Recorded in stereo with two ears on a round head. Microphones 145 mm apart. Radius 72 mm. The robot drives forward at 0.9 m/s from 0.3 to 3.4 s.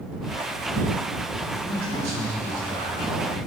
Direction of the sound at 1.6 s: 60° right (ahead or behind).